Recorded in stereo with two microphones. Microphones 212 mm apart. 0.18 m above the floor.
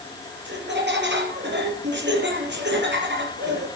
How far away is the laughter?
About 5.5 m.